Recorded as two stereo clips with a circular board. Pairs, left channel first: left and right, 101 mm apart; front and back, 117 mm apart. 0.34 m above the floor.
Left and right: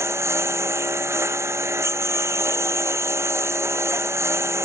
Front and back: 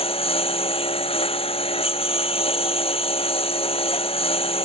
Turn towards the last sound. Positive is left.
turn(degrees=-30)